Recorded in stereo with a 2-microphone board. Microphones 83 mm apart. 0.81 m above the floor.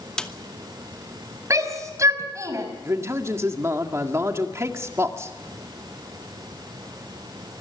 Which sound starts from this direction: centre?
A snare drum, at 0.2 s.